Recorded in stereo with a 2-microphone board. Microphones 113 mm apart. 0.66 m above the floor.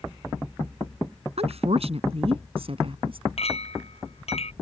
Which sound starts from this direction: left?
A clink, at 3.4 s.